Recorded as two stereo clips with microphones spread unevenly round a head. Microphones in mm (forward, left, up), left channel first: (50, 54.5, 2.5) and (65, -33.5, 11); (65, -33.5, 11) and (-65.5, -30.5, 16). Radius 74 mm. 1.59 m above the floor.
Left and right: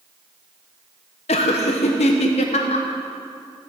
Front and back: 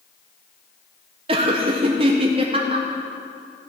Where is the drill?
I don't hear a drill.